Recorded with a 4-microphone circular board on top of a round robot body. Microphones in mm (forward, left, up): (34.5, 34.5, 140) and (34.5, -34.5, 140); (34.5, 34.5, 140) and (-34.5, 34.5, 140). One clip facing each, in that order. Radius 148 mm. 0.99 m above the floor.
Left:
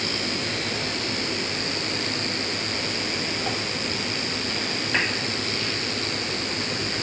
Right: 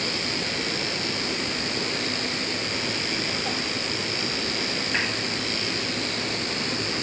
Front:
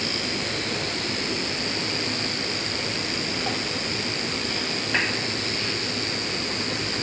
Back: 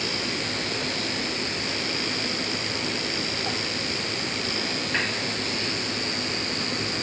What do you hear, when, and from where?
Only background noise.